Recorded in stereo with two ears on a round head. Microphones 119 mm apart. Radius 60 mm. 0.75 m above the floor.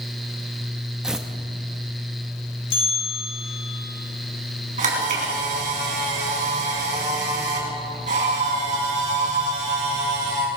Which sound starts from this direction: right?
A camera shutter, at 4.8 s.